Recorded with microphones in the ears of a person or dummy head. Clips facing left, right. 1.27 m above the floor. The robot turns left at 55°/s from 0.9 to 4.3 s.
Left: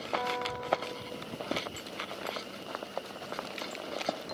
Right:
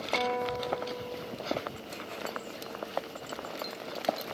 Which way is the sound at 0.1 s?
50° right (ahead or behind).